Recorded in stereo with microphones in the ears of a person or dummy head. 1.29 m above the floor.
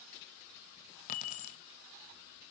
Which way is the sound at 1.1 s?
40° left (ahead or behind).